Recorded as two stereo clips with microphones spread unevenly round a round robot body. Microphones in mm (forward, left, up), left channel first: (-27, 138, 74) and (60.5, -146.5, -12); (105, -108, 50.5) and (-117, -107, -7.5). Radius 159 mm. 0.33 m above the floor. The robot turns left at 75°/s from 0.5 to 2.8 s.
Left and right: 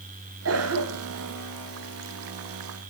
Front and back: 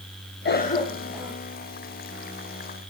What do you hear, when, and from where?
0.5 s a cough: 50° right, 1.7 m; by 1.3 s 115° right, 1.7 m